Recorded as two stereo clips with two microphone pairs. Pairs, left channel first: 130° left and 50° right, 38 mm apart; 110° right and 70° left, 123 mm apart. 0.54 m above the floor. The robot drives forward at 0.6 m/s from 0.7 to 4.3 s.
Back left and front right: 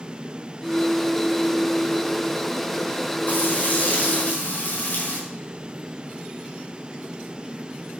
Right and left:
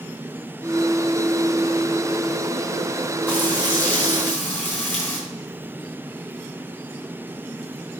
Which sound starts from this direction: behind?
Frying, at 3.3 s.